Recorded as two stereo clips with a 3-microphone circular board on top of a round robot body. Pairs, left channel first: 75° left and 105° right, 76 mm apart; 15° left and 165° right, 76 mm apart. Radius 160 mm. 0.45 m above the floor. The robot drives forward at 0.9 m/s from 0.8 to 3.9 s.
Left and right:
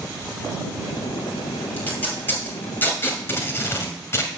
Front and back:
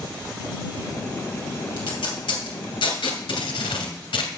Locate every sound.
1.8 s tape being pulled: 10° left, 3.5 m; by 4.3 s 15° left, 1.8 m